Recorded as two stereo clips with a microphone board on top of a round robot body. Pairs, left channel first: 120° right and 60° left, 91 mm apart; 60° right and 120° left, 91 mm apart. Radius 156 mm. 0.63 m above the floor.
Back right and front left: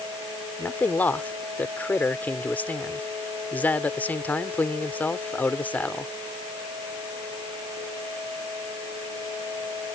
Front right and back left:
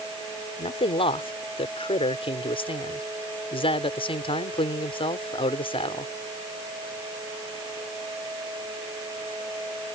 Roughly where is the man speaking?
Ahead right.